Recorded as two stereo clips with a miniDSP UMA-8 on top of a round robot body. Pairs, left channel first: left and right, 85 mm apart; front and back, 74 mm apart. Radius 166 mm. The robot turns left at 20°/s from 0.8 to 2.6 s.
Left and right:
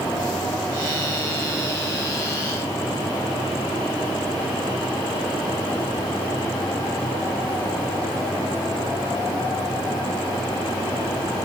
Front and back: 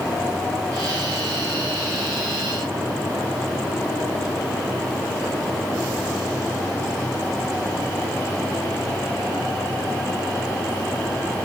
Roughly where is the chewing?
I don't hear chewing.